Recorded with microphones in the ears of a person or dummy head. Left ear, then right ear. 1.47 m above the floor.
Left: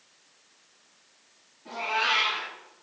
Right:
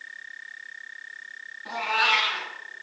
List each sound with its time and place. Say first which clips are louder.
1.6 s a cat meowing: right 4 dB; 60° right (ahead or behind), 2.5 m